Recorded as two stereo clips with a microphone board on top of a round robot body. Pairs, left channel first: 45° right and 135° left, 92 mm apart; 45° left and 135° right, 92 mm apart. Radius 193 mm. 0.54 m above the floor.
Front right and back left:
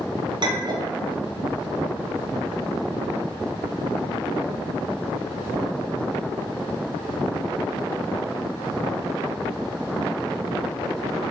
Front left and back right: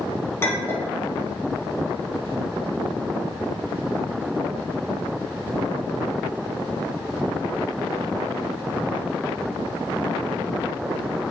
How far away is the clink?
About 1.2 m.